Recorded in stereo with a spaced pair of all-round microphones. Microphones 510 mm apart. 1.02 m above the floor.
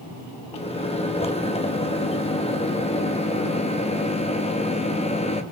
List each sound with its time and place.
0.5 s a microwave: 10° left (ahead or behind), 0.8 m